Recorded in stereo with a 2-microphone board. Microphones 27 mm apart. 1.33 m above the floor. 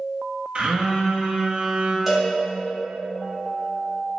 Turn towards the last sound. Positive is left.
turn(degrees=-10)  # may be behind; listen again after turning